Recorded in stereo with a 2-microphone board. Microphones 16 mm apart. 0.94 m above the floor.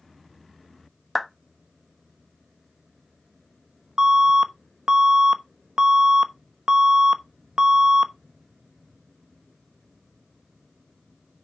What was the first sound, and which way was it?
A clap, 5° left (ahead or behind).